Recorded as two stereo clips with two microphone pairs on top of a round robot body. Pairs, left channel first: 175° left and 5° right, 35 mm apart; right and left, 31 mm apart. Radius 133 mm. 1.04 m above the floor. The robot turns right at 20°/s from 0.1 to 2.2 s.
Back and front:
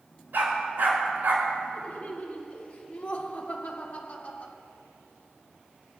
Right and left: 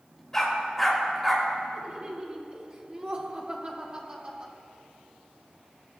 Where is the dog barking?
15° right, 4 m; by 1.5 s 10° left, 4 m.